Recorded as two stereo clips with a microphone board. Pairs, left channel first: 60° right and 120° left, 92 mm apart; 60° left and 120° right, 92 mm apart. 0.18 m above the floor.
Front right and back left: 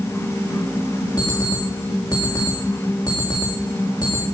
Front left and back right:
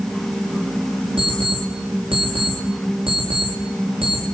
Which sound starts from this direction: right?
An alarm clock, at 1.2 s.